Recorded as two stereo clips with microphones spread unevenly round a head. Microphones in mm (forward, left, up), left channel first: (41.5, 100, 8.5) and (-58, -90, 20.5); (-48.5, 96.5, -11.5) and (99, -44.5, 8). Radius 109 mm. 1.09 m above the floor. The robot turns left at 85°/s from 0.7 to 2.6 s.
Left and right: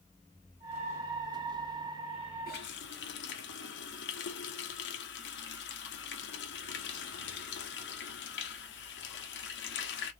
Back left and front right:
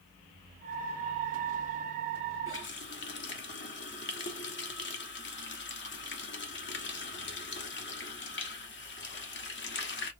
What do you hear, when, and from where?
2.5 s a running tap: 115° left, 1.1 m; by 10.1 s 100° left, 1.1 m